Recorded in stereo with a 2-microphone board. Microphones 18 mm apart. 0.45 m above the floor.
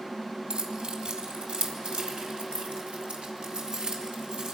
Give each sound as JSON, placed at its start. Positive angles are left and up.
{"t": 0.5, "sound": "keys jangling", "side_deg": -65, "distance_m": 2.5}